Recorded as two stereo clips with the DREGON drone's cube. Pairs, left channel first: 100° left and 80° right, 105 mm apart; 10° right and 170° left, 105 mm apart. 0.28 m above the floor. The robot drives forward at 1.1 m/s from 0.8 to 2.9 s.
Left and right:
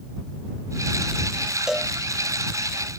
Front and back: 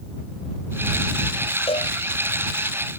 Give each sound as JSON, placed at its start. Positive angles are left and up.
{"t": 1.7, "sound": "a cowbell", "azimuth_deg": 5}